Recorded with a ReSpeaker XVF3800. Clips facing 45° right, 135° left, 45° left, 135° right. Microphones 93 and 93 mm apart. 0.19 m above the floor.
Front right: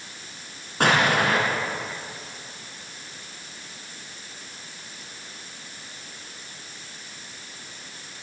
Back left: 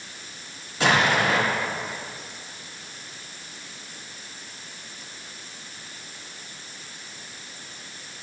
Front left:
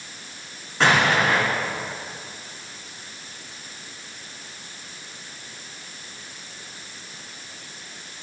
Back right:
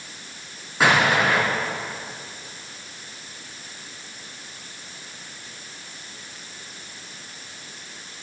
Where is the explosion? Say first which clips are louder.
Even, even; 55° right, 3 m.